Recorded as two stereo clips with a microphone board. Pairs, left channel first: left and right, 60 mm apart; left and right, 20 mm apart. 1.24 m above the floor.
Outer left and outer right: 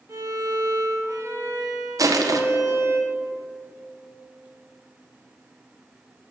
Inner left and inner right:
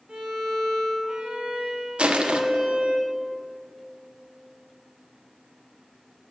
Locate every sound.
0.1 s a violin: 60° right (ahead or behind), 1.4 m
2.0 s crushing: 75° right (ahead or behind), 0.5 m